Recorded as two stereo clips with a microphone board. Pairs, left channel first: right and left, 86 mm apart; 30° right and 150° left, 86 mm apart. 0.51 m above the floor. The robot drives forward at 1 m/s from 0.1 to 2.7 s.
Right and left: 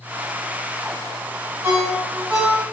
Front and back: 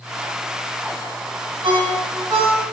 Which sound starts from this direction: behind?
A ringtone, at 1.6 s.